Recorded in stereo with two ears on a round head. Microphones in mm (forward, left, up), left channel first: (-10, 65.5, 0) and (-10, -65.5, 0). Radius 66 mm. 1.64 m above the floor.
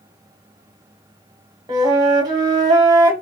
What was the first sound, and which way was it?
A flute, 30° right (ahead or behind).